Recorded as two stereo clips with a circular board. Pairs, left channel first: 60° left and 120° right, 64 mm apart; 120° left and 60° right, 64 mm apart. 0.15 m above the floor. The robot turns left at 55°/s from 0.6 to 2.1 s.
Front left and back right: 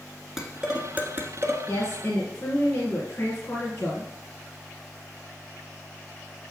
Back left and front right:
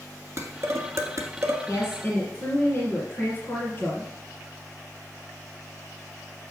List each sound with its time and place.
0.4 s dishes clattering: 40° right, 1.3 m; by 1.6 s 95° right, 1.3 m
1.7 s a woman speaking: 125° left, 2 m; by 4.1 s 100° left, 2 m